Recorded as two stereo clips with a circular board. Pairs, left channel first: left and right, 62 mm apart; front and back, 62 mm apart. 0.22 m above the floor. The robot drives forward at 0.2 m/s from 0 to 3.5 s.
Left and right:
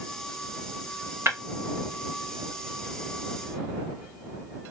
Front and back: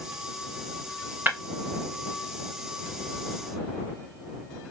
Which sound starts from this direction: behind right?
Breaking glass, at 1.3 s.